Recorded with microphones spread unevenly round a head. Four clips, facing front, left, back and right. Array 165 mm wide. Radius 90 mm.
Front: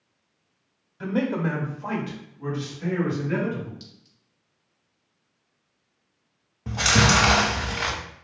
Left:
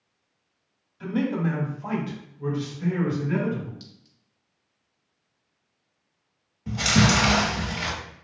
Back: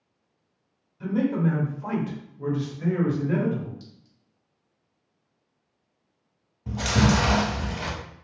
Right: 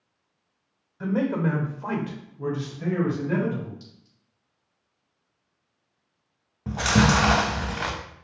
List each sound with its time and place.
1.0 s a man speaking: 40° right, 0.9 m; by 3.7 s 115° right, 1.5 m
3.8 s a clink: 80° left, 0.8 m
6.7 s chewing: 50° right, 0.8 m